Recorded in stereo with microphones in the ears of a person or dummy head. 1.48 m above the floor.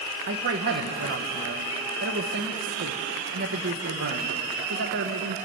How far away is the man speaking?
About 1.1 m.